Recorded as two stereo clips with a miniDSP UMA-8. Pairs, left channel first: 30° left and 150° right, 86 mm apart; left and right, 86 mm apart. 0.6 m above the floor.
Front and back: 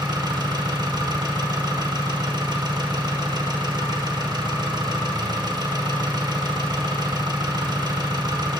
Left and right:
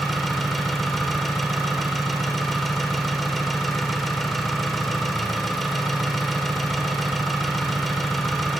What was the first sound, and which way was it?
An engine running, straight behind.